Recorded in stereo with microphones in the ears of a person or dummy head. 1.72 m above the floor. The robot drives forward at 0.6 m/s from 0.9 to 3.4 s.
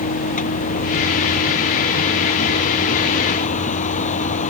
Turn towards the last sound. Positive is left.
turn(degrees=40)  # may be behind; listen again after turning